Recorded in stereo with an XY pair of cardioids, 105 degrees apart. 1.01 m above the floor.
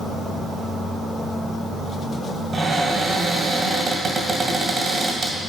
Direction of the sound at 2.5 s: 40° right.